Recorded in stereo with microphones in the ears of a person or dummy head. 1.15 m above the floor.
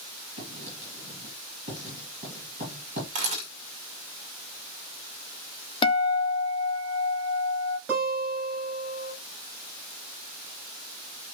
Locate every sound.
0.4 s writing: 45° right (ahead or behind), 5 m
3.1 s a camera shutter: 45° right (ahead or behind), 2.5 m
5.8 s a guitar: 30° left (ahead or behind), 0.9 m
7.9 s a guitar: 15° right (ahead or behind), 6.5 m